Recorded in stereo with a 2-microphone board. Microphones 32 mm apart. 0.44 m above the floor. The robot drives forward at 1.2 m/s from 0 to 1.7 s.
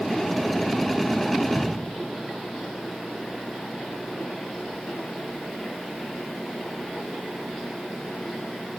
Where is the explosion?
45° left (ahead or behind), 3.5 m.